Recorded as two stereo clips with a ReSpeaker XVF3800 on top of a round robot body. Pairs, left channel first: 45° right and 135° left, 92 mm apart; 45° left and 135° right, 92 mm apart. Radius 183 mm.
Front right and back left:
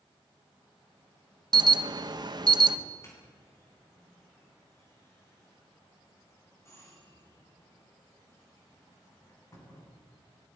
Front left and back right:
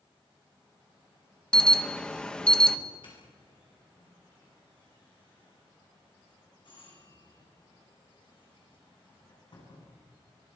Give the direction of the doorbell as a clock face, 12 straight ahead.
12 o'clock.